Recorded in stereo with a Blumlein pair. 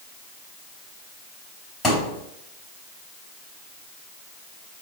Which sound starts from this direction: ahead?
A thud, at 1.8 s.